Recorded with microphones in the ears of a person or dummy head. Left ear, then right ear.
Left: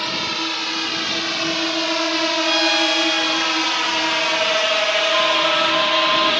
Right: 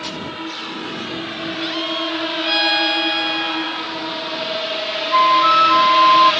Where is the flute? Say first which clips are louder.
Right 4 dB; 75° right (ahead or behind).